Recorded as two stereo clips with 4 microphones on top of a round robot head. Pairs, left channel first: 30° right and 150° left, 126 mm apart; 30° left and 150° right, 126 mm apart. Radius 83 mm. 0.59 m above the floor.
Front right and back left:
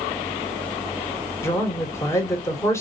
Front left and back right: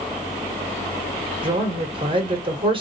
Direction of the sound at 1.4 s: 100° right.